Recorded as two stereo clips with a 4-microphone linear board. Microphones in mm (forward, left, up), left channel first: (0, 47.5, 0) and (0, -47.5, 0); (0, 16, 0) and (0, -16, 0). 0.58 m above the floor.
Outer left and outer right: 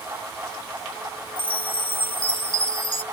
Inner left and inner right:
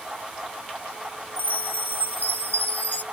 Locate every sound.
1.4 s a chime: 60° left (ahead or behind)